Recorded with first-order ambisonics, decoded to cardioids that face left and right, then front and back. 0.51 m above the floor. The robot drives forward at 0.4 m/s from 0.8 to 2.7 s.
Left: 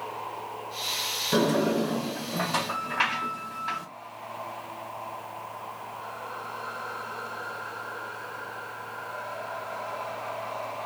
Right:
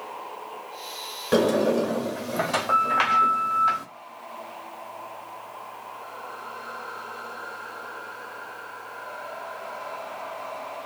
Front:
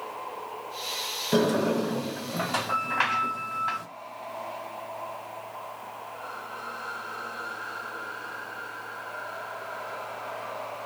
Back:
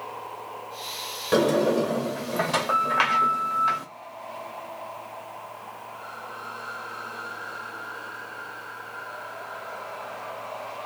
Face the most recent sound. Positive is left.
turn(degrees=-145)